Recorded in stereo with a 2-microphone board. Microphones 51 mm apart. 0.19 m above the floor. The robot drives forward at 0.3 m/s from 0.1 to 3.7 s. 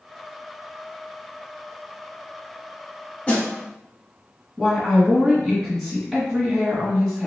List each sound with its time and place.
3.3 s a snare drum: 25° left (ahead or behind), 1.5 m
4.6 s a woman speaking: 5° left (ahead or behind), 1.9 m